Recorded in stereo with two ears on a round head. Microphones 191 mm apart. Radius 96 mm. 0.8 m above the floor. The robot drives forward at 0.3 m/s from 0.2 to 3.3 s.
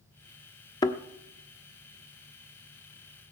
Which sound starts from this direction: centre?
A thud, at 0.8 s.